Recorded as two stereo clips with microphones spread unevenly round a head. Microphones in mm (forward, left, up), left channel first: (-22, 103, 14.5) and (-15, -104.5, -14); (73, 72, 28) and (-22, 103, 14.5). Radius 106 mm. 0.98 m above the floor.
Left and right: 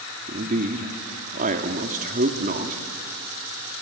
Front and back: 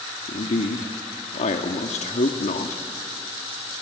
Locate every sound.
0.3 s a man speaking: 35° right, 1.8 m